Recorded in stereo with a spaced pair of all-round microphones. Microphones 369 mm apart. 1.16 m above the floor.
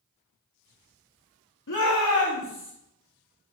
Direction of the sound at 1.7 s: 55° left (ahead or behind).